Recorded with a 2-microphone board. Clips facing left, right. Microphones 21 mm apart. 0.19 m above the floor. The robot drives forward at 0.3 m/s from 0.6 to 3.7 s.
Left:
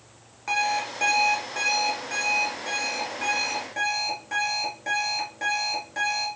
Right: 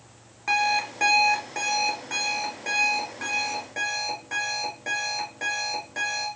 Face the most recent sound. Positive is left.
turn(degrees=-5)  # may be behind; listen again after turning